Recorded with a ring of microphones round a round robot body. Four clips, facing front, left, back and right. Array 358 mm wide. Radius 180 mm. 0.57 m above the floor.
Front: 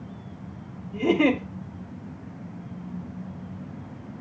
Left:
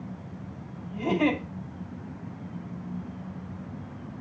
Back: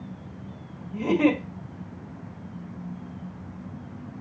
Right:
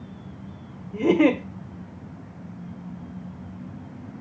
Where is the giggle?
80° right, 2 m.